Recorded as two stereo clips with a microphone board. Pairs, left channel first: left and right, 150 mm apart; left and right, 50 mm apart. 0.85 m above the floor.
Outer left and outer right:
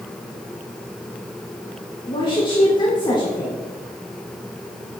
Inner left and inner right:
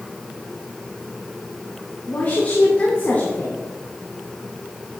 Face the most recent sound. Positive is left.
turn(degrees=30)  # may be behind; listen again after turning